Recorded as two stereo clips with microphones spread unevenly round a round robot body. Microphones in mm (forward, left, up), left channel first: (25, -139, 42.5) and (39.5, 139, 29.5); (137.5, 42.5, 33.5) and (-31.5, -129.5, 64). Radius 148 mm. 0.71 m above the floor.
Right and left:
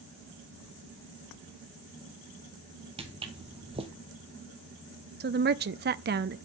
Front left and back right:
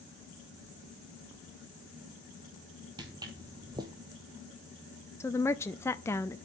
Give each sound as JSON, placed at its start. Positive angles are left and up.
{"t": 3.0, "sound": "footsteps", "azimuth_deg": 160, "distance_m": 1.0}
{"t": 5.2, "sound": "a woman speaking", "azimuth_deg": 110, "distance_m": 0.6}